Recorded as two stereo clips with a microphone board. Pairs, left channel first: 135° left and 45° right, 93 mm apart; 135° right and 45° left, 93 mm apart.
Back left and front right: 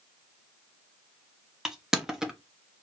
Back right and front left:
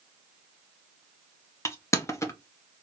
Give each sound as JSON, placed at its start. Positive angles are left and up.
{"t": 1.6, "sound": "crushing", "azimuth_deg": -125, "distance_m": 0.8}